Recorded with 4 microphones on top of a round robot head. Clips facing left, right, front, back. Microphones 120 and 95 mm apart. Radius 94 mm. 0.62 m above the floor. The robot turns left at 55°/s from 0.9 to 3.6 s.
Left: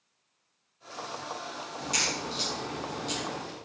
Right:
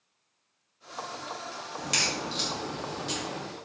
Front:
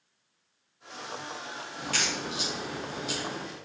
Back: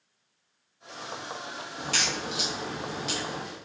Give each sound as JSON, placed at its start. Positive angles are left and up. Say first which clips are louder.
{"t": 1.8, "sound": "a crack", "louder": "right 1 dB, back 1 dB", "azimuth_deg": -105, "distance_m": 3.0}